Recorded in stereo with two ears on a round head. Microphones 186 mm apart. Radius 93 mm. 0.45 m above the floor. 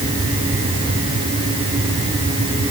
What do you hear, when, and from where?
Only background noise.